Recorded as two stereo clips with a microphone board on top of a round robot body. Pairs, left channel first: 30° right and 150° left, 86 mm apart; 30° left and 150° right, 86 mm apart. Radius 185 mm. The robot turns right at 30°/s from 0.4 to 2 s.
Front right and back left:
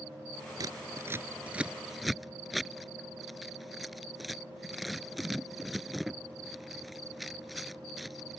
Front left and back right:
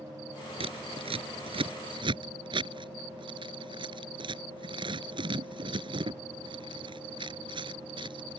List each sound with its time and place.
0.6 s scissors: 165° right; by 8.4 s 120° right